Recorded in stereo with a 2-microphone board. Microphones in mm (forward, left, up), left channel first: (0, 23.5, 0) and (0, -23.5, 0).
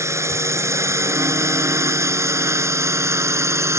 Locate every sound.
0.0 s a drone: 85° right; by 3.8 s 80° right